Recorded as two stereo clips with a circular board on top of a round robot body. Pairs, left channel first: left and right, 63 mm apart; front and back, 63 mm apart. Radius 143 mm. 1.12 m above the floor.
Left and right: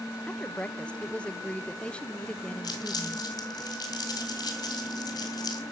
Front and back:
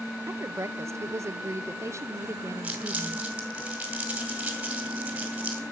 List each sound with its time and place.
0.3 s a woman speaking: 160° left, 0.8 m
2.6 s crumpling: 110° left, 2.5 m